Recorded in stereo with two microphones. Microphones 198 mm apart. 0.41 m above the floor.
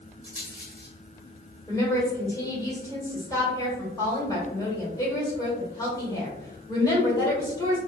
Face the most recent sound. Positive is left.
turn(degrees=15)  # may be behind; listen again after turning